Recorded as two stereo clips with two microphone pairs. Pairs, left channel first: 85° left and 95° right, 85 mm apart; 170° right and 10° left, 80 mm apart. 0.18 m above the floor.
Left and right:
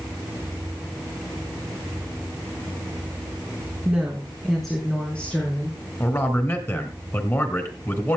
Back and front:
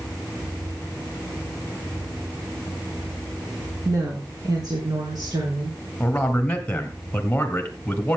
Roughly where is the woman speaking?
Ahead.